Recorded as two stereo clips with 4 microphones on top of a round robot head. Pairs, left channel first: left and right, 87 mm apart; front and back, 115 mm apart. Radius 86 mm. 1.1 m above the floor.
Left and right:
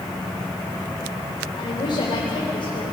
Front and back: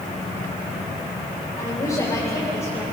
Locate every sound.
1.6 s a woman speaking: 55° left, 4.5 m; by 2.8 s 65° left, 4.5 m